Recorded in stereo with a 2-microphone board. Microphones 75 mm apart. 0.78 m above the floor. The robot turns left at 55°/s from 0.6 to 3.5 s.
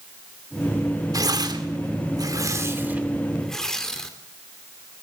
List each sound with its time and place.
1.1 s tearing paper: 50° right (ahead or behind), 2.5 m; by 4.1 s 5° left (ahead or behind), 2.5 m